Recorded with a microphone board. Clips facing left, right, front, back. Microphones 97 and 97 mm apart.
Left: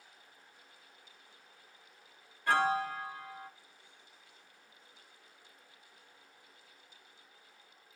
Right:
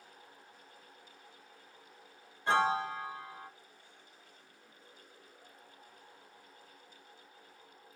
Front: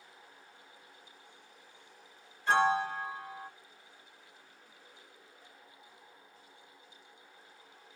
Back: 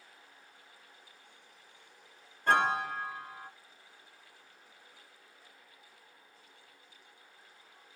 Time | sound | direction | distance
2.5 | a piano | 155° right | 0.8 m